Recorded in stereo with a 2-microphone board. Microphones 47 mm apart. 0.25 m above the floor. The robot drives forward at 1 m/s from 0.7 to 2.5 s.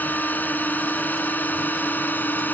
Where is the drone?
40° left (ahead or behind).